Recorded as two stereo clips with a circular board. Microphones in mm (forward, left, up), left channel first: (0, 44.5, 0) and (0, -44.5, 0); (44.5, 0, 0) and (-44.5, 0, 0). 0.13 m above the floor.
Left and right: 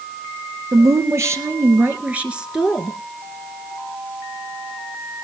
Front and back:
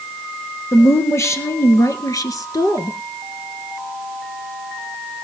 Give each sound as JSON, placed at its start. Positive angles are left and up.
{"t": 0.7, "sound": "a woman speaking", "azimuth_deg": -55, "distance_m": 2.5}